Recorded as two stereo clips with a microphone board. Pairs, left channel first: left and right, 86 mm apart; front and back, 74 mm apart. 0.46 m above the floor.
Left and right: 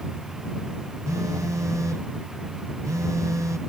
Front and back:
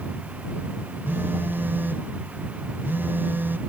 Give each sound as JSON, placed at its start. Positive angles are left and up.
{"t": 1.1, "sound": "a phone buzzing", "azimuth_deg": -130}